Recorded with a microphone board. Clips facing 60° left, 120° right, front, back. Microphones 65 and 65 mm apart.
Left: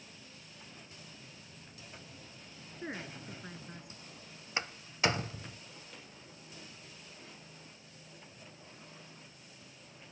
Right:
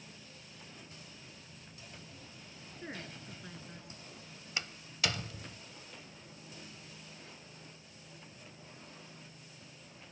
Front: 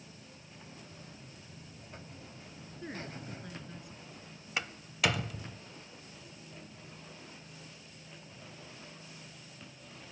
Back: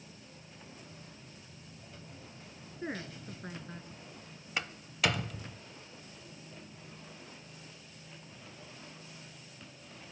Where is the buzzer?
5° right, 1.5 m.